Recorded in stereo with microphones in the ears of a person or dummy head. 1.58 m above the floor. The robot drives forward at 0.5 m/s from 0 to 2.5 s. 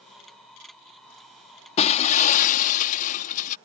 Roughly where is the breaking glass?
Left.